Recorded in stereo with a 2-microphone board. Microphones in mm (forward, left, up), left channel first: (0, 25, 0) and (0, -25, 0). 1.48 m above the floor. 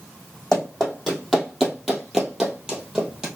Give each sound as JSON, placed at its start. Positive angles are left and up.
{"t": 0.5, "sound": "running footsteps", "side_deg": 10, "distance_m": 2.5}